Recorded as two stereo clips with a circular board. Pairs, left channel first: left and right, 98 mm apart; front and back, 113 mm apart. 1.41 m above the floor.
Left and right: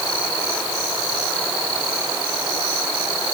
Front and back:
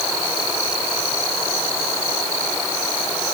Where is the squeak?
I don't hear a squeak.